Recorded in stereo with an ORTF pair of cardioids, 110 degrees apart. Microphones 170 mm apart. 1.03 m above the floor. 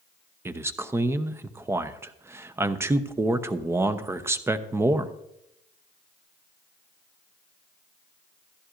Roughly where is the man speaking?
Ahead.